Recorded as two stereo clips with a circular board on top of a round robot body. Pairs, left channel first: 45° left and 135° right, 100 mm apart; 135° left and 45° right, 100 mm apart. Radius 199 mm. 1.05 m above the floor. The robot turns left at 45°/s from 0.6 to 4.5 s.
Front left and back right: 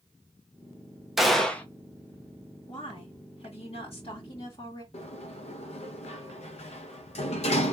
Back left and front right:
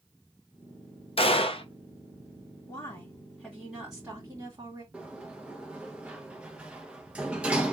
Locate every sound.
1.2 s a gunshot: 140° left, 1.2 m; by 1.6 s 120° left, 1.2 m
2.7 s a woman speaking: 95° left, 2.5 m; by 4.8 s 10° left, 2.5 m
4.9 s a sliding door: 35° left, 0.6 m